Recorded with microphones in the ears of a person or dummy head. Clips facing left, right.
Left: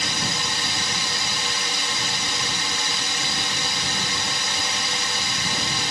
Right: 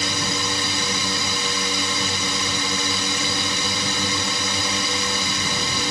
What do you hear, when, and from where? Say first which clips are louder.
0.0 s a drone: right 3 dB; 65° right (ahead or behind)